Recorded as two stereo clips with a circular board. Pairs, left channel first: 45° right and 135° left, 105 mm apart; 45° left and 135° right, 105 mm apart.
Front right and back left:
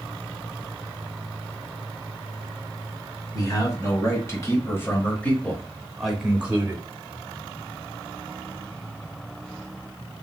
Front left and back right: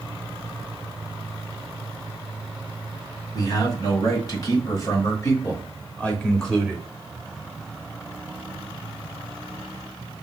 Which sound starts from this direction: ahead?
A man speaking, at 3.3 s.